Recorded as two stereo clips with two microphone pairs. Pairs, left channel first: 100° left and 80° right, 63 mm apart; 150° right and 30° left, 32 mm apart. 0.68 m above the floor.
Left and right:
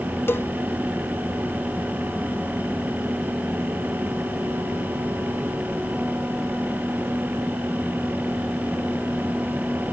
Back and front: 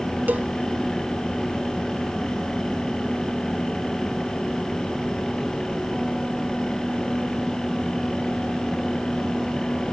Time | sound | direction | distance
0.3 | a cowbell | 50° left | ?